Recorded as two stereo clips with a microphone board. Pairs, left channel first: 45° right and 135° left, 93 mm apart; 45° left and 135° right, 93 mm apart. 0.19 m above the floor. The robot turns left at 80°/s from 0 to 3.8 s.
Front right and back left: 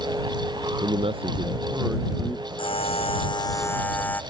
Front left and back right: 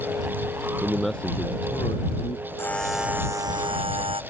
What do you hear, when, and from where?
0.8 s a man speaking: 155° left; by 2.5 s 20° left
2.6 s a buzzer: 20° right; by 4.2 s 115° right